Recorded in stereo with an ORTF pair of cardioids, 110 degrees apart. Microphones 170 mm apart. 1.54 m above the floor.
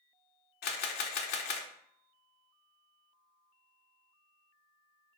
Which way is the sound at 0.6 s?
70° left.